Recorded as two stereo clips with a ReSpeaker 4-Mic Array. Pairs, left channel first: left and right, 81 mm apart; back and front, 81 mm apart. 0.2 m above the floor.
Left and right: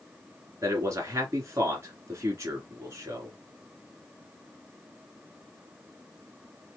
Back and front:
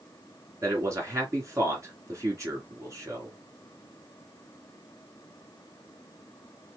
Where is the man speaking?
45° right, 2.5 m.